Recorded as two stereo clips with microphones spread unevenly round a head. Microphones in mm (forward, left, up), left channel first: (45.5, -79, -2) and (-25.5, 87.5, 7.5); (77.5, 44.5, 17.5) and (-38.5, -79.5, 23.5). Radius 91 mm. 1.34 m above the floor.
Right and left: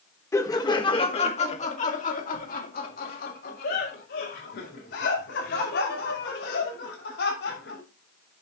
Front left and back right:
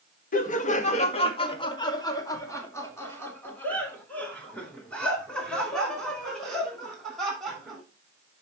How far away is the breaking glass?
I don't hear breaking glass.